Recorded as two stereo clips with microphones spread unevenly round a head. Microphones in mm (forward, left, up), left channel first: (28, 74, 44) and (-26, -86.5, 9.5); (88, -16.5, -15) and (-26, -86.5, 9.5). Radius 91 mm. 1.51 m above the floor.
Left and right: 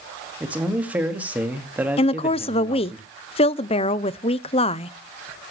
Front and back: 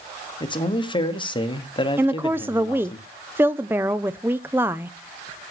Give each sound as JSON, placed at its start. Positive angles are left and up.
{"t": 0.4, "sound": "a man speaking", "azimuth_deg": -25, "distance_m": 2.0}
{"t": 2.0, "sound": "a woman speaking", "azimuth_deg": 130, "distance_m": 0.6}